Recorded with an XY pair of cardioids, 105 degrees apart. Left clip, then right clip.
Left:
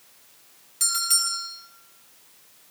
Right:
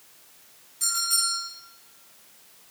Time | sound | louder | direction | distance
0.8 | a bell | left 1 dB | 65° left | 7 m